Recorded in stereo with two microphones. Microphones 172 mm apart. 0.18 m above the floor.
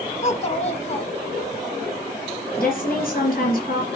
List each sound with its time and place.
0.2 s a child speaking: 40° left (ahead or behind), 0.8 m
2.6 s a woman speaking: 60° left (ahead or behind), 2.5 m